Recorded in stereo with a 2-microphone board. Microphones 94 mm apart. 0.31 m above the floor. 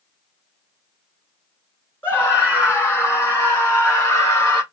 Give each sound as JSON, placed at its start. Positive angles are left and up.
{"t": 2.0, "sound": "a scream", "side_deg": 25, "distance_m": 3.5}